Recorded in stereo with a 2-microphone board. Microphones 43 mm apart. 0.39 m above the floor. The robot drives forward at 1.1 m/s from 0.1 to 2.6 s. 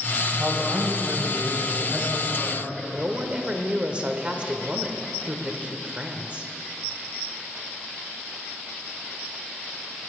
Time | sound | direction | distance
0.4 | a man speaking | 50° right (ahead or behind) | 2.5 m
2.9 | a woman speaking | 25° right (ahead or behind) | 1.1 m